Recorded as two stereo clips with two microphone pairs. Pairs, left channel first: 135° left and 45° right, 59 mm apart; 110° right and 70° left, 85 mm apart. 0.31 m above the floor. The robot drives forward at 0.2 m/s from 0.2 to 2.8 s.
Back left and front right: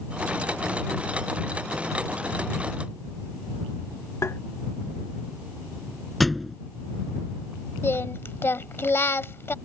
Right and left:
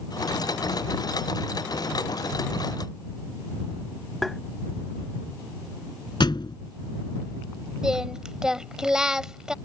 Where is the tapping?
165° left.